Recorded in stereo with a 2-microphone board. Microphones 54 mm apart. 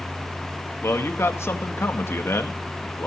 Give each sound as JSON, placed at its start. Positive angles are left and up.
{"t": 0.8, "sound": "a man speaking", "side_deg": 55, "distance_m": 1.9}